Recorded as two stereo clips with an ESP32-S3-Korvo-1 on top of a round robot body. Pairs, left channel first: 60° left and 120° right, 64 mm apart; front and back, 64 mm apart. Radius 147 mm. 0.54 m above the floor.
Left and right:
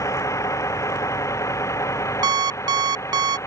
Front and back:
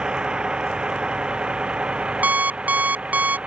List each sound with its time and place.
0.0 s a vehicle: 100° left; by 3.5 s 105° left
2.2 s an alarm clock: 115° right